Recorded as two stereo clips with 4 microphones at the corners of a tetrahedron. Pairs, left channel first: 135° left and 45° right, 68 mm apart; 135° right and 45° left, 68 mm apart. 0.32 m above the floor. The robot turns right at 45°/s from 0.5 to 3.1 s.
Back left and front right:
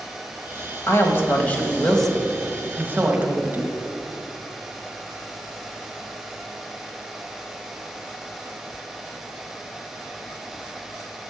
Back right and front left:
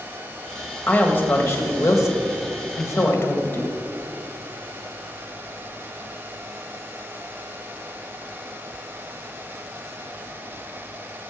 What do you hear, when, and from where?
0.9 s a woman speaking: 165° left, 1.4 m; by 3.7 s 95° right, 1.4 m